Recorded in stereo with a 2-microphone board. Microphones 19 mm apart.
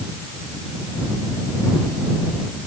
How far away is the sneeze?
No sneeze in this recording.